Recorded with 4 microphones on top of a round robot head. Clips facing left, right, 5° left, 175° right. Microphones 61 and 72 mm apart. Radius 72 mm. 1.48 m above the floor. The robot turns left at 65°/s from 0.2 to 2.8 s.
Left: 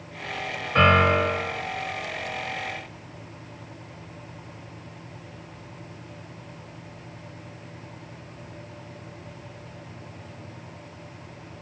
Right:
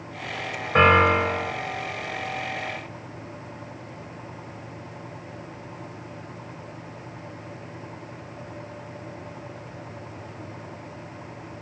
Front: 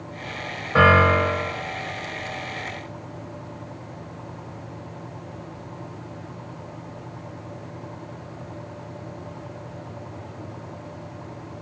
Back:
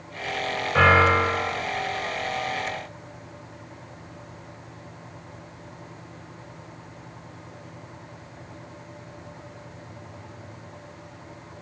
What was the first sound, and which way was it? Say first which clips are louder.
A piano: right 2 dB, front 2 dB; 55° right.